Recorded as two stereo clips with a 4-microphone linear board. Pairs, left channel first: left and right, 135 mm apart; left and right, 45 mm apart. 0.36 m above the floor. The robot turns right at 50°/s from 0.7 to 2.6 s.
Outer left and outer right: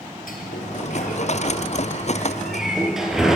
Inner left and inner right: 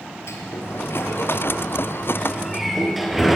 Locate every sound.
0.3 s a sliding door: 85° left, 4 m; by 3.4 s 5° right (ahead or behind), 4 m